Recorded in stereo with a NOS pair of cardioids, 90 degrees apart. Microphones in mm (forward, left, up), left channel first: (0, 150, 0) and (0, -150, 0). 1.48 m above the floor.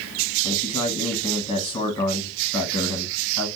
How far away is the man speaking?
About 1.3 m.